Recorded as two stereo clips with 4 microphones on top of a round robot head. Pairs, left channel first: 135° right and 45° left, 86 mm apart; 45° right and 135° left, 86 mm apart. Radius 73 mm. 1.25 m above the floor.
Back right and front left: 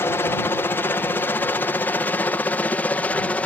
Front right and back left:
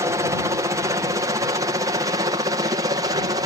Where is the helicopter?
170° left; by 3.5 s 155° left.